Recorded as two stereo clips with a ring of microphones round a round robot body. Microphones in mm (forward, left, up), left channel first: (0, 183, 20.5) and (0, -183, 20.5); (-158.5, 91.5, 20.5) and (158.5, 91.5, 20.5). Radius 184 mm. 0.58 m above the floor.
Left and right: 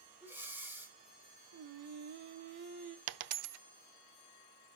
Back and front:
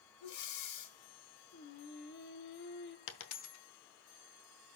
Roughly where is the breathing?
Behind.